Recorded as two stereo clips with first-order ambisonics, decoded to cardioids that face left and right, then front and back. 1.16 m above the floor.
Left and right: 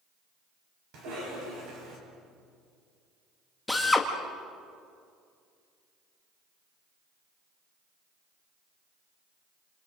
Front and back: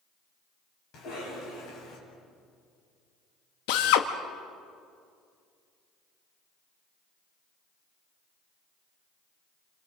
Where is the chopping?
I don't hear chopping.